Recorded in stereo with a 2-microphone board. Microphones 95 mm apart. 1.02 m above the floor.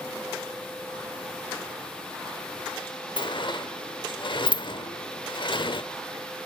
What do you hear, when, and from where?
3.2 s a sliding door: 55° left (ahead or behind), 1.0 m